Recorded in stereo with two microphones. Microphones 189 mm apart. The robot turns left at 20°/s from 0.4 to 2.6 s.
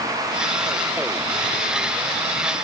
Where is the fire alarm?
No fire alarm in this recording.